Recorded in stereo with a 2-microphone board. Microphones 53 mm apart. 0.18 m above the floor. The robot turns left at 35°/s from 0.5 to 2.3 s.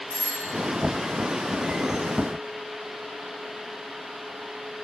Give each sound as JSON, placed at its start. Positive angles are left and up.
{"t": 0.1, "sound": "a doorbell", "side_deg": 75, "distance_m": 6.0}